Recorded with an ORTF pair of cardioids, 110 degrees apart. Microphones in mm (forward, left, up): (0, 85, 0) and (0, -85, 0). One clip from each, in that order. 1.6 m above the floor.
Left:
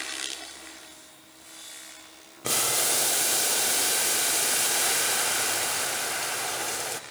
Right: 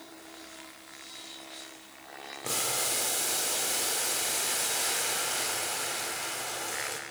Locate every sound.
2.4 s boiling: 35° left, 0.6 m